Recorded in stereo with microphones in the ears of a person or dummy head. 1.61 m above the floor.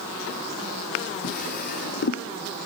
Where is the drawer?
50° left (ahead or behind), 2 m.